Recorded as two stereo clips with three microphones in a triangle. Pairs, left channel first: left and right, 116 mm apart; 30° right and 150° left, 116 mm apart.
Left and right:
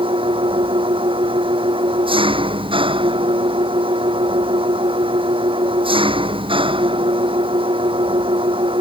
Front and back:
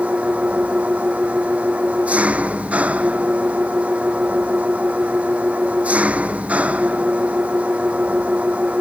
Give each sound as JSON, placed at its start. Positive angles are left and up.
{"t": 0.0, "sound": "an engine running", "azimuth_deg": -130}